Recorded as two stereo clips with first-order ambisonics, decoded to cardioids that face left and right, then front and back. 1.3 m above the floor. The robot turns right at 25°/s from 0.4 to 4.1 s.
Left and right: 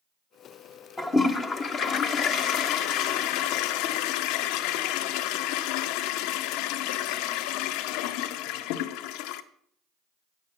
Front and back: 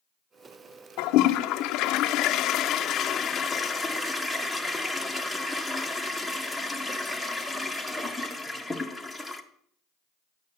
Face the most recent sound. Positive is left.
turn(degrees=95)